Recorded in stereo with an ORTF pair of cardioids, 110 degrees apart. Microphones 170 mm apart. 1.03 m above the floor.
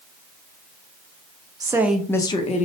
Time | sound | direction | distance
1.6 | a woman speaking | 25° right | 0.7 m